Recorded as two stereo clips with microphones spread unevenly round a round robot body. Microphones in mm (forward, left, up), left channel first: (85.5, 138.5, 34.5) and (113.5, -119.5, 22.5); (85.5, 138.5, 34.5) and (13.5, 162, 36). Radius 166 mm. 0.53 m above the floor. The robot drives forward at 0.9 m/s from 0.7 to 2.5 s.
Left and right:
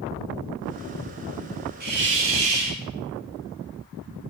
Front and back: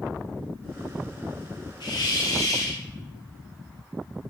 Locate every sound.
1.8 s a hiss: 30° right, 0.8 m; by 2.8 s 90° right, 0.5 m